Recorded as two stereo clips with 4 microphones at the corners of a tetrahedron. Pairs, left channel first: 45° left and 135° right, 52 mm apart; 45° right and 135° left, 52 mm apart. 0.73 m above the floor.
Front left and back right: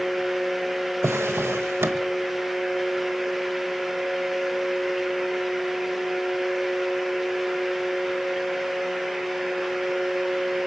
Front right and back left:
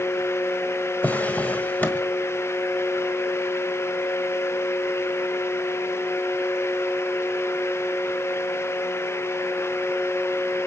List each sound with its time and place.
1.0 s a drawer: 105° right, 1.3 m